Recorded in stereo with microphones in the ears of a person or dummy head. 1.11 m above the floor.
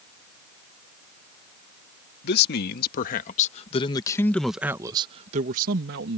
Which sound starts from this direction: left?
A man speaking, at 2.2 s.